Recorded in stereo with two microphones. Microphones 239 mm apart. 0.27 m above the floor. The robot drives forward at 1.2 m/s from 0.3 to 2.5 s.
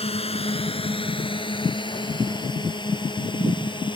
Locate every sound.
0.0 s a drone: 25° left (ahead or behind); by 4.0 s 20° left (ahead or behind)